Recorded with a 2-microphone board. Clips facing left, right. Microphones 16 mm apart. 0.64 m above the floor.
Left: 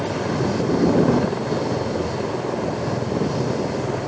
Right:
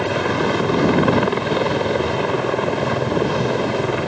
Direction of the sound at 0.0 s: 60° right (ahead or behind).